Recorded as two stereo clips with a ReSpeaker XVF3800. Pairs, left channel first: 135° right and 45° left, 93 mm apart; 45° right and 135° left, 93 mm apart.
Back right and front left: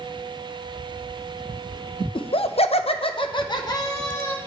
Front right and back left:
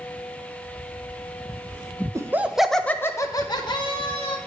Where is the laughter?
165° right, 0.6 m; by 4.4 s 75° right, 1.1 m.